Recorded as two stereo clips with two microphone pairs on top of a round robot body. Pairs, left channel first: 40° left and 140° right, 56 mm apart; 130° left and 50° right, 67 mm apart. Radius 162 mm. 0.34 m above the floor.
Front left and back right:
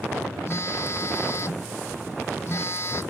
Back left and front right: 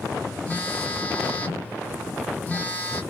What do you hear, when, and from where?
0.5 s a phone buzzing: 65° left, 1.3 m